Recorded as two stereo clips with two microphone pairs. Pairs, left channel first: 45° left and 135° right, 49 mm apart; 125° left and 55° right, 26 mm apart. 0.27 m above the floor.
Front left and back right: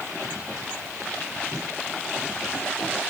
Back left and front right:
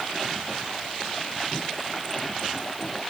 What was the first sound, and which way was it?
Only background noise.